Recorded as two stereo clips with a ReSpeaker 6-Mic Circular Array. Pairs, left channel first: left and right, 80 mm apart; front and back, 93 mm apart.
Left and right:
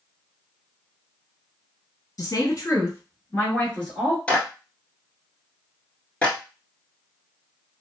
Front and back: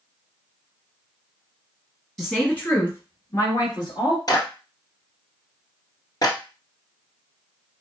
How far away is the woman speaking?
About 1.8 m.